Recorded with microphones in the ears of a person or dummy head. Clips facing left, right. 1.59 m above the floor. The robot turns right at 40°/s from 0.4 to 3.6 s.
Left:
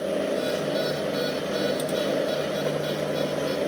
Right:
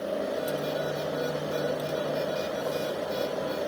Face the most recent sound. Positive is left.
No sound to turn to.